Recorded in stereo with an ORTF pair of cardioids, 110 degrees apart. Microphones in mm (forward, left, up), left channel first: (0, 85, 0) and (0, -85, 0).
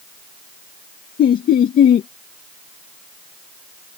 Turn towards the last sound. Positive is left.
turn(degrees=55)